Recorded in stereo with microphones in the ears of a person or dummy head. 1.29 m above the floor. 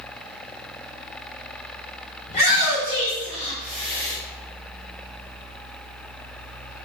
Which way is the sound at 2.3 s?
50° left (ahead or behind).